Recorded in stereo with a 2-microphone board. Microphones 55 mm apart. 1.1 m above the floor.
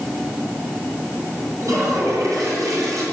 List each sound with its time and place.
1.6 s a toilet flushing: 85° right, 8.5 m